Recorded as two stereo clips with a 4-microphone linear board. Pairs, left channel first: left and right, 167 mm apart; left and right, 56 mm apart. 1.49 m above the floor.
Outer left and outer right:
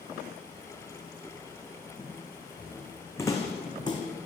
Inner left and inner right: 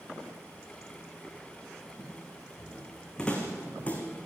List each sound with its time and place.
2.0 s footsteps: 5° left (ahead or behind), 4.5 m; by 4.0 s 25° left (ahead or behind), 3.5 m